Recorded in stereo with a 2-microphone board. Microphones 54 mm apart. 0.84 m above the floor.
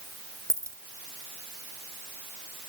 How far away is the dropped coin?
About 1.3 m.